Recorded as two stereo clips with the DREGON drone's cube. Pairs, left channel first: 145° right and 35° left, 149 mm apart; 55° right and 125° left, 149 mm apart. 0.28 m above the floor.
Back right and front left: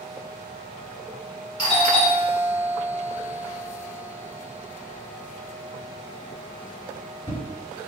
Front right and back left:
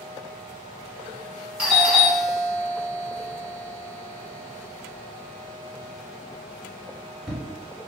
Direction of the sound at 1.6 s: 160° right.